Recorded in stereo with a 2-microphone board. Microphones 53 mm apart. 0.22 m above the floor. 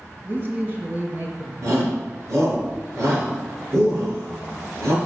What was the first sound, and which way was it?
A man speaking, 40° right (ahead or behind).